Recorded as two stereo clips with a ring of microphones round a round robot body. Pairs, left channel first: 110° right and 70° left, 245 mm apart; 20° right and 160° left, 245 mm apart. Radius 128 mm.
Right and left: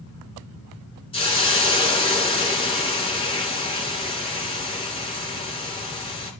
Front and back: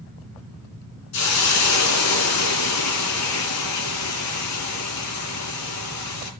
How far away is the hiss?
About 3 m.